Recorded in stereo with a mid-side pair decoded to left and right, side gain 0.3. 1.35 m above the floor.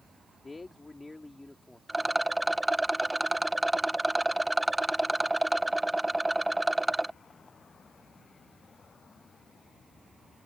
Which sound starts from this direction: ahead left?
A man speaking, at 0.4 s.